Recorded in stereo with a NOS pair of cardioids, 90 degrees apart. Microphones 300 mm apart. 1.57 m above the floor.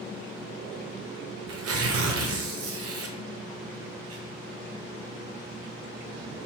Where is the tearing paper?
50° right, 0.9 m.